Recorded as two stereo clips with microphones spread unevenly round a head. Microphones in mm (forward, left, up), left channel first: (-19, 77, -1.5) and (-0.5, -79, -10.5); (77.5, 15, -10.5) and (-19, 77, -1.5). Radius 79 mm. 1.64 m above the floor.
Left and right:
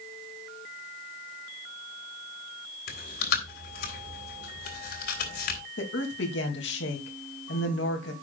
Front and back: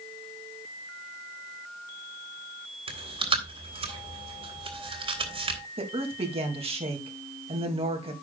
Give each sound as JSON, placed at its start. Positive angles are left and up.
{"t": 2.9, "sound": "chewing", "azimuth_deg": 115, "distance_m": 3.5}
{"t": 5.8, "sound": "a woman speaking", "azimuth_deg": 110, "distance_m": 2.5}